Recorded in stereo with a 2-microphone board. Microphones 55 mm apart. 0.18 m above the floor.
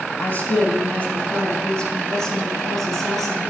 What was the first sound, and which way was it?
A woman speaking, 35° left (ahead or behind).